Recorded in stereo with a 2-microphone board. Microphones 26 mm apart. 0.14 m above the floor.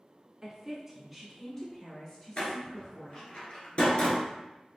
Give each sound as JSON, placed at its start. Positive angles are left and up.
{"t": 0.4, "sound": "a woman speaking", "side_deg": -15, "distance_m": 1.5}
{"t": 2.4, "sound": "a door slam", "side_deg": 50, "distance_m": 1.4}